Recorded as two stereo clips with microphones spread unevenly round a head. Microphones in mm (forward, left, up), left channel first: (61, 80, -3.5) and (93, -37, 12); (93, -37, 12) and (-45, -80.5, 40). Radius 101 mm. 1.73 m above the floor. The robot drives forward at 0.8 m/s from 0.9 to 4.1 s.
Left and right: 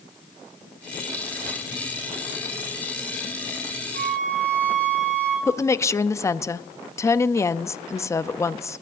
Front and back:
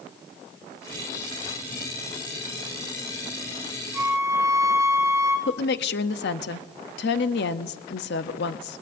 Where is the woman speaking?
35° left, 0.6 m.